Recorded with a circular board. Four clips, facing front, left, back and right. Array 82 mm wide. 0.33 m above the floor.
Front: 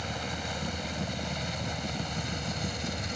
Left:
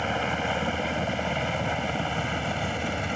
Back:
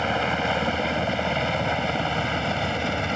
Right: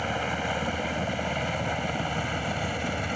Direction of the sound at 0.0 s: 170° left.